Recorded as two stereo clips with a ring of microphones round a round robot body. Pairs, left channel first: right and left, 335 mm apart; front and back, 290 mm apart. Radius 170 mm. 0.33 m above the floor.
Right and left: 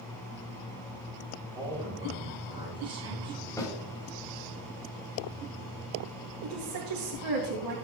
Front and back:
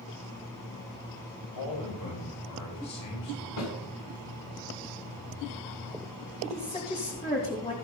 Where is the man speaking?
15° left, 7.5 m.